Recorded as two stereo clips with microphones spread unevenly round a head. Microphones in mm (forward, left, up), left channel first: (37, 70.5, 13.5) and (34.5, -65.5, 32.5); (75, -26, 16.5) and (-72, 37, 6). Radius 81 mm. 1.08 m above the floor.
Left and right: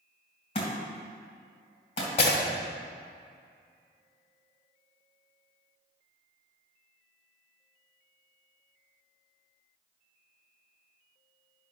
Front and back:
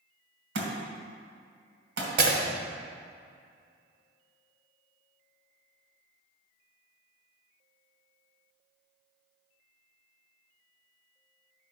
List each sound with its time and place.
0.6 s a thud: 145° left, 2.5 m
2.2 s breaking glass: 145° left, 1.8 m